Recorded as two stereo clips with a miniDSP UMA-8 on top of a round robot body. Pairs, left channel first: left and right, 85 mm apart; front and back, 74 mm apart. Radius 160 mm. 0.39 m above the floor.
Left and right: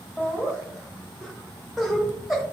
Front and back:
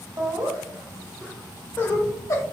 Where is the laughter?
170° right, 1.0 m; by 2.4 s straight ahead, 1.1 m.